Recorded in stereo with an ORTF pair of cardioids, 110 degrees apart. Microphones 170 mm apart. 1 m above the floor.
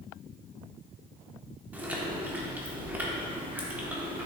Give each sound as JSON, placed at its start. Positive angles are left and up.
{"t": 1.7, "sound": "chewing", "azimuth_deg": -10, "distance_m": 1.6}